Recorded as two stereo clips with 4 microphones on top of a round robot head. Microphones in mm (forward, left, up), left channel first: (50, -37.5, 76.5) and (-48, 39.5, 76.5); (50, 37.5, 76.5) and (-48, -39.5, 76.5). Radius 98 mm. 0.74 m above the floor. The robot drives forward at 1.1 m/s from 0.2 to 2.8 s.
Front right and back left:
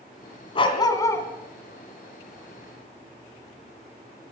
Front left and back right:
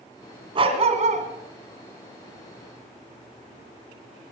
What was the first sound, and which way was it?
A dog barking, 90° right.